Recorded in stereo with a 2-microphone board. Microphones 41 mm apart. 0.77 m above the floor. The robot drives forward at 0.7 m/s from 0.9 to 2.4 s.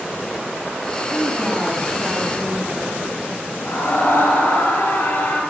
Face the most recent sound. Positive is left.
turn(degrees=85)